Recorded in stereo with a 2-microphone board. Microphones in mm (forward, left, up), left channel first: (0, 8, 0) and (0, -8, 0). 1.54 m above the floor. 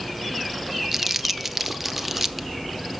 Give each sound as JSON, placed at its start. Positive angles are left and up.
{"t": 0.9, "sound": "crumpling", "side_deg": -15, "distance_m": 0.6}